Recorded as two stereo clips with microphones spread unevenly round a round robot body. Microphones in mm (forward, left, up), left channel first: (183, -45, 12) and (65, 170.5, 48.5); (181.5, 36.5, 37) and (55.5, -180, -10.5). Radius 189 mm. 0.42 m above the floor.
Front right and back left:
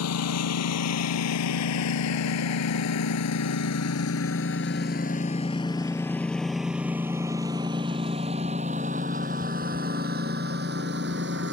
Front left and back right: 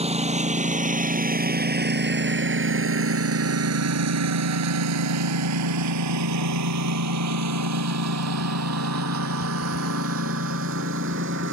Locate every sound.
0.0 s a lawn mower: 55° right; by 11.5 s straight behind